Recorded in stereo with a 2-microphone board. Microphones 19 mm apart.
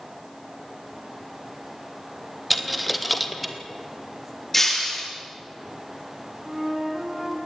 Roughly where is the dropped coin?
Centre.